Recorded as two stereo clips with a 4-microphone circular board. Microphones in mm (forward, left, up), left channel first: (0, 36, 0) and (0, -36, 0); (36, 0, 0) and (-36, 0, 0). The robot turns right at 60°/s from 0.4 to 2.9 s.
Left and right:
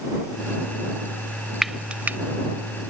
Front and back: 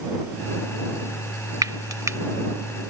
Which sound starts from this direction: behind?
Frying, at 1.6 s.